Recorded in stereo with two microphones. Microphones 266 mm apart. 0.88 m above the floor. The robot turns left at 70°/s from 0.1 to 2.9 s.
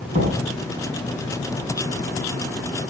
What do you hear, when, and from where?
0.1 s knocking: 25° right (ahead or behind), 8 m; by 0.4 s 40° right (ahead or behind), 8 m